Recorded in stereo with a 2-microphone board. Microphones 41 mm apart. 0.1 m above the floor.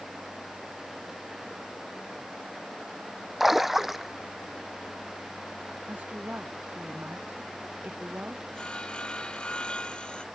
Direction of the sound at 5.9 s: 45° right (ahead or behind).